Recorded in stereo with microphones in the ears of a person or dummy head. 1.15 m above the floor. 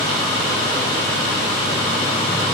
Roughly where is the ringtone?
No ringtone in this recording.